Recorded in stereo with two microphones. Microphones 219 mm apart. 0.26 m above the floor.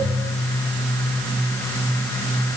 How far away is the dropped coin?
No dropped coin in this recording.